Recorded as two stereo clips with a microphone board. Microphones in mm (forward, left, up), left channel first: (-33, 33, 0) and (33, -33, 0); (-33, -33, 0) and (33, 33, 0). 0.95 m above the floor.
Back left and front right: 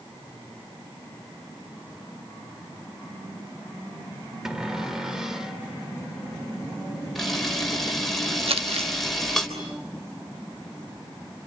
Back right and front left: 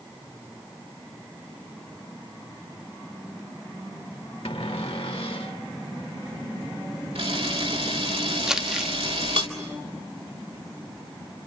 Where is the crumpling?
40° right, 0.8 m.